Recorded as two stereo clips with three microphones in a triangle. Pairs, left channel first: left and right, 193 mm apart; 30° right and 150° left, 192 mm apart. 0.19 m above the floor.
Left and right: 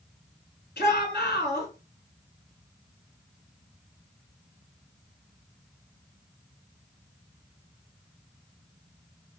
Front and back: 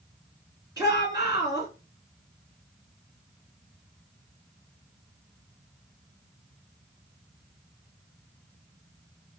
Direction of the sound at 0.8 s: 85° left.